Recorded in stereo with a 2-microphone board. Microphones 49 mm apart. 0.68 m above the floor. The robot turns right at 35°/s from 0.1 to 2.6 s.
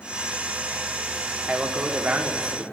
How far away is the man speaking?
About 1.5 m.